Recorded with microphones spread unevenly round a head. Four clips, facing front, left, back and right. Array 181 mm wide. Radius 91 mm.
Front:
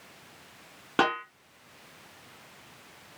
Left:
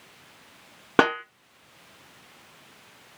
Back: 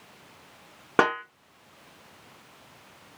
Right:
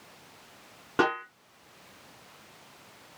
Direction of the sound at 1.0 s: 110° left.